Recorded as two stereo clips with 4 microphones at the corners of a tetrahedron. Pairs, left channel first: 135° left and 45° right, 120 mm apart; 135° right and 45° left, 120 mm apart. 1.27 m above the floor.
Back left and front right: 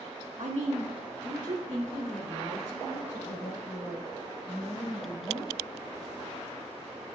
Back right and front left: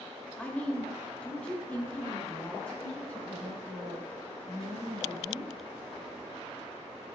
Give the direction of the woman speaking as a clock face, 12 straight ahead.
2 o'clock.